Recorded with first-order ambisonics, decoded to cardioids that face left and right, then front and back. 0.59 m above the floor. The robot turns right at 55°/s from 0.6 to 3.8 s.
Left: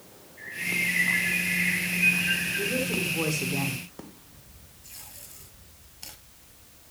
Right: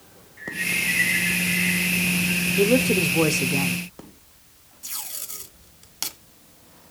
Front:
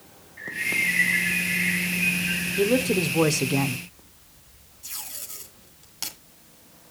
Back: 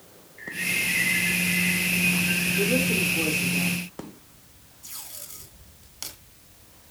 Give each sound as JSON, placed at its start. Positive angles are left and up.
{"t": 0.4, "sound": "a bird", "azimuth_deg": -20, "distance_m": 6.0}
{"t": 2.6, "sound": "a man speaking", "azimuth_deg": -75, "distance_m": 1.2}
{"t": 4.8, "sound": "tape being pulled", "azimuth_deg": -80, "distance_m": 2.5}